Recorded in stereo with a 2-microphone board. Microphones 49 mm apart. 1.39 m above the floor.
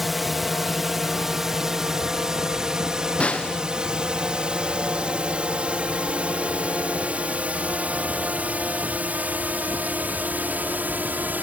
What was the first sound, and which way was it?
A drone, centre (ahead or behind).